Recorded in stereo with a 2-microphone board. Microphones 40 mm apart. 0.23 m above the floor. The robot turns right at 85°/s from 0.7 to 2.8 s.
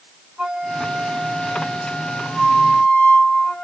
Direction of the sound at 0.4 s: 20° right (ahead or behind).